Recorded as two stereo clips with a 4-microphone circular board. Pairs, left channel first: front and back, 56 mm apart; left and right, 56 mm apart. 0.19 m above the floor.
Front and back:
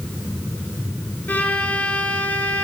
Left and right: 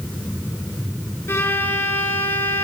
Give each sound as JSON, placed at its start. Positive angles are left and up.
{"t": 1.3, "sound": "a violin", "azimuth_deg": 55, "distance_m": 1.4}